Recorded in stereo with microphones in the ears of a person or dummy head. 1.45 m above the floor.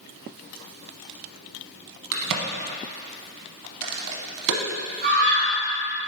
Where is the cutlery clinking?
I don't hear cutlery clinking.